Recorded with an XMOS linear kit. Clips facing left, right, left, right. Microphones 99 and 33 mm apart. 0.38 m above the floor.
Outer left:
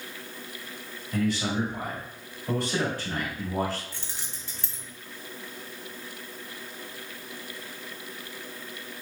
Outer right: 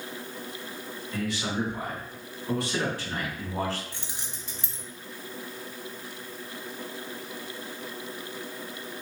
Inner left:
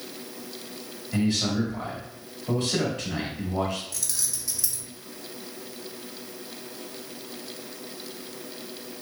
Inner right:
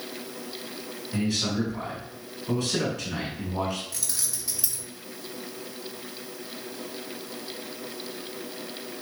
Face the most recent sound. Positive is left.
turn(degrees=-20)  # may be behind; listen again after turning